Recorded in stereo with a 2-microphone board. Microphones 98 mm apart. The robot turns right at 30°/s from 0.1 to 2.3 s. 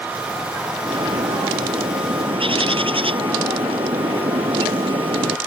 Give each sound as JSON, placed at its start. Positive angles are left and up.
{"t": 0.8, "sound": "a bird", "azimuth_deg": -115}